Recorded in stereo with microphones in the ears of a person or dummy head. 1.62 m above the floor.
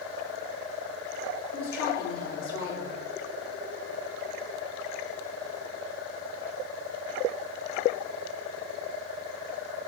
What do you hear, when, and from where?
1.5 s a woman speaking: 70° left (ahead or behind), 4.5 m